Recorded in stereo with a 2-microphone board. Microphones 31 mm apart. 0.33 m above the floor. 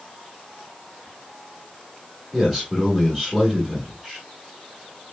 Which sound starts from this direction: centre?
A man speaking, at 2.3 s.